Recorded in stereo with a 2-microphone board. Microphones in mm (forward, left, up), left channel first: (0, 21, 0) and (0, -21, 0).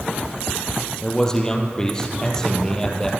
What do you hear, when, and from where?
1.0 s a man speaking: 15° left (ahead or behind), 3.5 m